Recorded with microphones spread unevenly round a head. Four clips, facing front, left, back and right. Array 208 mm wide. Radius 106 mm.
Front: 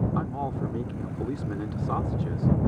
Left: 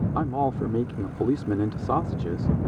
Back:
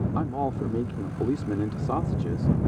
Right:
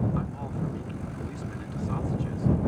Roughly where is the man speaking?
Behind left.